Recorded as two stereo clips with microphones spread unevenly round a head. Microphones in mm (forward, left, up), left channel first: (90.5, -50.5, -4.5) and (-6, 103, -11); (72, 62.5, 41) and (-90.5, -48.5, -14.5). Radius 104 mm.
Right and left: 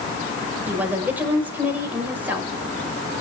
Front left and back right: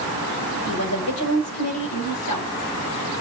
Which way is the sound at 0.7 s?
40° left.